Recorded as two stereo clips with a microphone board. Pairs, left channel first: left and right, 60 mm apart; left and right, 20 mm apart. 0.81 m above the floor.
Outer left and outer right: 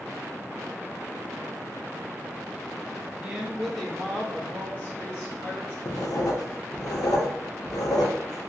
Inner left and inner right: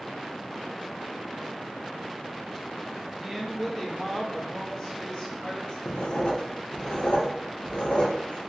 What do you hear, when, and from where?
3.2 s a woman speaking: 25° right (ahead or behind), 0.9 m; by 5.8 s 45° left (ahead or behind), 1.7 m
5.8 s writing: 65° left (ahead or behind), 0.6 m